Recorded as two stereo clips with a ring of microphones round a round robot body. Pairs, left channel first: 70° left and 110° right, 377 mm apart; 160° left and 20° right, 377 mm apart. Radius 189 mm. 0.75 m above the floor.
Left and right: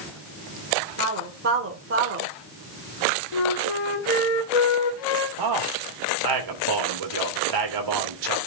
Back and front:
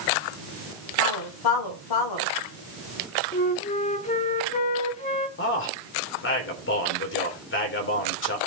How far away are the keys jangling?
No keys jangling in this recording.